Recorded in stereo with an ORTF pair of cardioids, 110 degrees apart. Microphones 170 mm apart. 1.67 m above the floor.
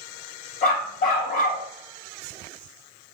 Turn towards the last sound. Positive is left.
turn(degrees=55)